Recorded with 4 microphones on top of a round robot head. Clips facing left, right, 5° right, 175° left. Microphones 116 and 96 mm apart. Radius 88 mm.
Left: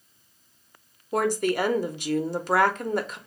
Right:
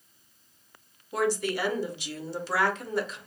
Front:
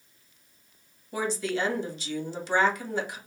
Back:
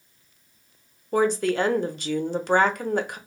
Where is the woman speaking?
135° left, 0.7 m.